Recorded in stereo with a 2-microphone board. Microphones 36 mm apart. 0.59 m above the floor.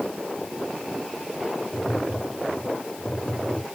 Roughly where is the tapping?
Centre.